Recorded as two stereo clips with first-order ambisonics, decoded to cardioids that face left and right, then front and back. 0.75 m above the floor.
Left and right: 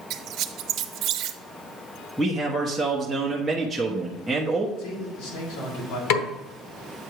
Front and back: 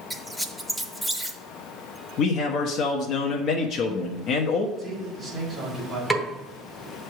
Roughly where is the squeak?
Right.